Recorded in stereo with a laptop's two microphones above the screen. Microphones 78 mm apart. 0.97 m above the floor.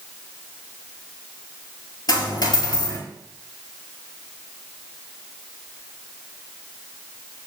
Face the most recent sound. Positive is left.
turn(degrees=60)  # may be behind; listen again after turning